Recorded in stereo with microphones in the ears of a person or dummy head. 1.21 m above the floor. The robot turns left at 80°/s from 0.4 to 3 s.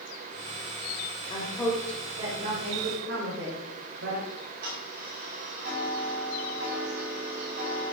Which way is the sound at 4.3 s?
50° right (ahead or behind).